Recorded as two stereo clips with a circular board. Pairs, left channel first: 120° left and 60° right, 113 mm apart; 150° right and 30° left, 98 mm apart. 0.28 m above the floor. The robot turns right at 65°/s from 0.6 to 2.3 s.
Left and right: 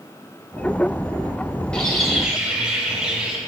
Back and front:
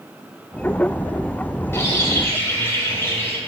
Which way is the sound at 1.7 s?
170° right.